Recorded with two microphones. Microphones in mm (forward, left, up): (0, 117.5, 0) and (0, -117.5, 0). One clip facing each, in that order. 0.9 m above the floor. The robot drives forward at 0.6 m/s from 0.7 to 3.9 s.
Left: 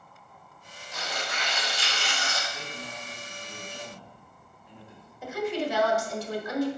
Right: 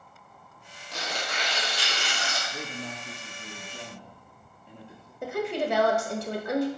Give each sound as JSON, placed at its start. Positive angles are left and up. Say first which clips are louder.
{"t": 0.9, "sound": "tearing paper", "louder": "right 1 dB", "side_deg": -80, "distance_m": 1.6}
{"t": 2.5, "sound": "a man speaking", "louder": "right 4 dB", "side_deg": -60, "distance_m": 0.7}
{"t": 5.2, "sound": "a woman speaking", "louder": "right 1 dB", "side_deg": -60, "distance_m": 1.0}